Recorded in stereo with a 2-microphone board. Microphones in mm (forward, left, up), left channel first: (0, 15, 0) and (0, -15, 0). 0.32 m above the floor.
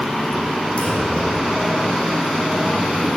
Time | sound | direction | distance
0.8 | a clunk | 45° left (ahead or behind) | 9 m